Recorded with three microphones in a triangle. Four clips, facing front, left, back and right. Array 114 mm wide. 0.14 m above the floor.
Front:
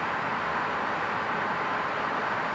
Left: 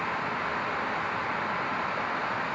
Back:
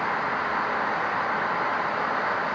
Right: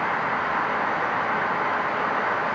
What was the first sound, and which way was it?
Only background noise.